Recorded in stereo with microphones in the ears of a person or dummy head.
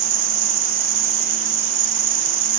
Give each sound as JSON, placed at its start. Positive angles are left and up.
{"t": 0.0, "sound": "an insect", "side_deg": -70, "distance_m": 1.3}